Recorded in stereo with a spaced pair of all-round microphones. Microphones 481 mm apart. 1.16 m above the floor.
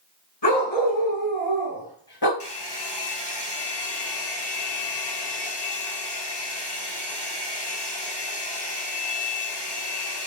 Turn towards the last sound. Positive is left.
turn(degrees=55)  # may be behind; listen again after turning